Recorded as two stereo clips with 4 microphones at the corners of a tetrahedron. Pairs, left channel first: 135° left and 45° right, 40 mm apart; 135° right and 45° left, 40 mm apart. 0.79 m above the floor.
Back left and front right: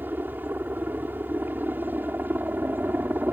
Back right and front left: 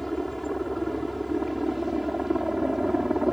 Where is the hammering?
No hammering in this recording.